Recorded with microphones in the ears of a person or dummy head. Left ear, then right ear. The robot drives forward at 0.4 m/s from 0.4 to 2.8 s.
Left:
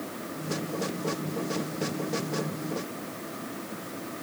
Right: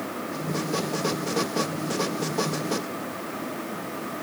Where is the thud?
No thud in this recording.